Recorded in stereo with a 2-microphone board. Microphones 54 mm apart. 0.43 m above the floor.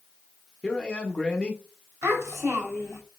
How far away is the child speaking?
About 1.7 m.